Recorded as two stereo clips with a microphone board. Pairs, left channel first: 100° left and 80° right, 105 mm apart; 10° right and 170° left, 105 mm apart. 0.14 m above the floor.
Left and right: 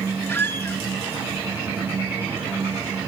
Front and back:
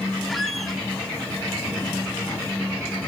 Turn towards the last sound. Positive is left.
turn(degrees=80)